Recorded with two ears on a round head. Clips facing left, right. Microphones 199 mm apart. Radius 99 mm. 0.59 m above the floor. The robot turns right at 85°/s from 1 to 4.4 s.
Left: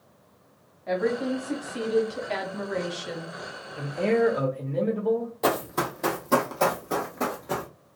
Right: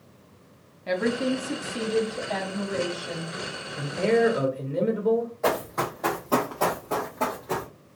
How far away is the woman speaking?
About 0.9 m.